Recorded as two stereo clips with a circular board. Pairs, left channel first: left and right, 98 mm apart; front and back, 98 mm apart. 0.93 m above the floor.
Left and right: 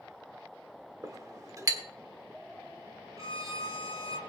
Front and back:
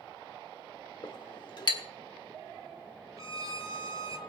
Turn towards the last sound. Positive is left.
turn(degrees=-135)